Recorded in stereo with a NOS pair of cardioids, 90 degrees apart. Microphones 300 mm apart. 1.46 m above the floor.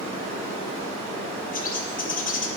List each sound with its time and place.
0.0 s running water: 65° right, 2.5 m
1.5 s a bird: 30° left, 1.0 m